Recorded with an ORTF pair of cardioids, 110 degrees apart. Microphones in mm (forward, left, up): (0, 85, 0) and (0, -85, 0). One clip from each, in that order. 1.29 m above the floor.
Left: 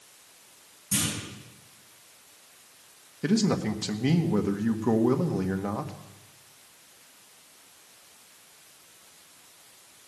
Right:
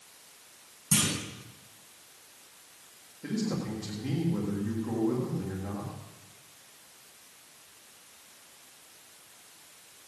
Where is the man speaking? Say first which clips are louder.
Left 8 dB; 65° left, 1.6 m.